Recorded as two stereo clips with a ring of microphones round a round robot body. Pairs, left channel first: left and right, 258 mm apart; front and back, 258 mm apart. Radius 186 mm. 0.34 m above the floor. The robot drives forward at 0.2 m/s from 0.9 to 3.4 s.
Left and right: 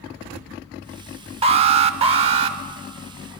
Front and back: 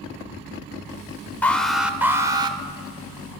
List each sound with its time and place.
1.4 s an alarm: 75° right, 0.6 m; by 2.6 s 130° right, 0.6 m